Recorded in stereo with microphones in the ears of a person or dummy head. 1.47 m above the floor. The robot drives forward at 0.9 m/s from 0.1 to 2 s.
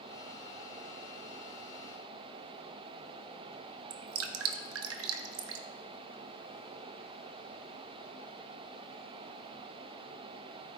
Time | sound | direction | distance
3.9 | dripping | 80° right | 0.9 m